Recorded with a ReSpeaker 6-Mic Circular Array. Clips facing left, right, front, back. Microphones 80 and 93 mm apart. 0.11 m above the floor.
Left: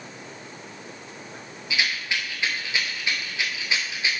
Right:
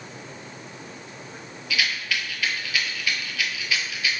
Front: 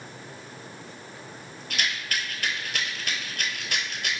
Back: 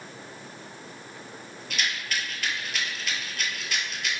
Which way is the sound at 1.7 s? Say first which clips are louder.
Even, even; 30° left.